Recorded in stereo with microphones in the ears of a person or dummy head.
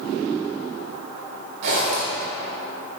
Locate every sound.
1.6 s a zipper: 60° right (ahead or behind), 2 m